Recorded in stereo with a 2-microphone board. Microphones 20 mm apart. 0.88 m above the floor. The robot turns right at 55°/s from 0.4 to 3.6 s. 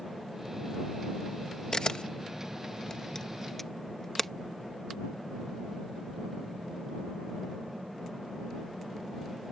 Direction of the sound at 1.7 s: 40° left (ahead or behind).